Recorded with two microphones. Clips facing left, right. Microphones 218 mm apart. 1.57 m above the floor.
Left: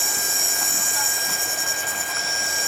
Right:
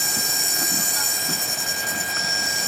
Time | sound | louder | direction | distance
0.0 | an insect | right 1 dB | 40° right (ahead or behind) | ?